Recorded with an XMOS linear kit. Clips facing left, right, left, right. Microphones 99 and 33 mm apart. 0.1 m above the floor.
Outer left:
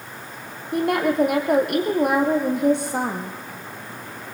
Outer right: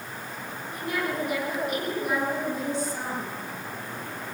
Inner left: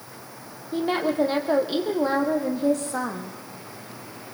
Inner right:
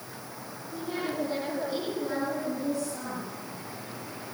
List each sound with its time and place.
0.7 s a woman speaking: 65° left (ahead or behind), 4 m